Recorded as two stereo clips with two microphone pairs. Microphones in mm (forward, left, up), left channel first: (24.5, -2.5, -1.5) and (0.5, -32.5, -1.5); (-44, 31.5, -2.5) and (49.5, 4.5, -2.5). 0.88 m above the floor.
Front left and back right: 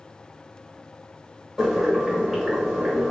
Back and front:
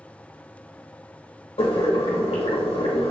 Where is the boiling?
150° left, 0.9 m.